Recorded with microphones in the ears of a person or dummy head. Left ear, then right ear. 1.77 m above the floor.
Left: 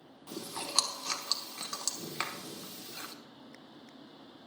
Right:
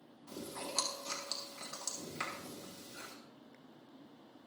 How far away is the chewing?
About 1.4 m.